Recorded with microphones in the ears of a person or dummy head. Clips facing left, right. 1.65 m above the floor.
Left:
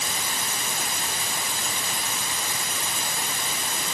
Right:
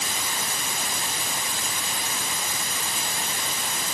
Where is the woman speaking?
I don't hear a woman speaking.